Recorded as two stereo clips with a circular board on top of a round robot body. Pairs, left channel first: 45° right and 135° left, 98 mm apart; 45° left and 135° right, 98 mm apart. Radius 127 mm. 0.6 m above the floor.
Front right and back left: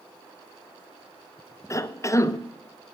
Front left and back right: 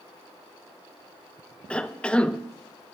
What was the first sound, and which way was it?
A cough, 25° right.